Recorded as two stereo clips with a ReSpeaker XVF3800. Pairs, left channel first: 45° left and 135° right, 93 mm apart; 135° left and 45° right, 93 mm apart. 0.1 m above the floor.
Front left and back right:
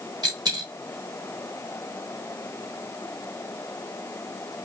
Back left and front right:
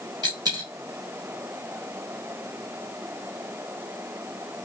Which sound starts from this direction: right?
A dropped coin, at 0.2 s.